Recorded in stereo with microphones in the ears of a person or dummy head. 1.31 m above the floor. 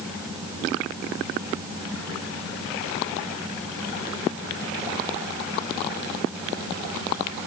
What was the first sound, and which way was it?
Only background noise.